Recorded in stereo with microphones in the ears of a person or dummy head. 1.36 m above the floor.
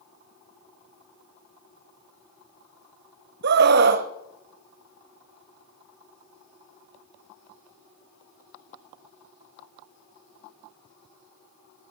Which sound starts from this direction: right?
A scream, at 3.4 s.